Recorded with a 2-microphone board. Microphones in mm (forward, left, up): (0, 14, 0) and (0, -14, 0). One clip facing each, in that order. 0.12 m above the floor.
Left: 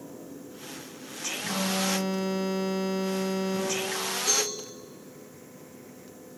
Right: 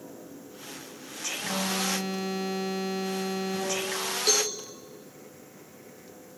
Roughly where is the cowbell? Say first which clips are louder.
Right 3 dB; right.